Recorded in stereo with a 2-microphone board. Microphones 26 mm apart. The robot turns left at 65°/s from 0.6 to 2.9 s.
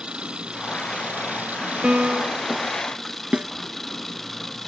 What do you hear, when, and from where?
0.0 s an engine running: 40° right; by 4.7 s 170° left
1.8 s a piano: 55° right; by 2.5 s 95° right
3.3 s a snare drum: 50° right (ahead or behind)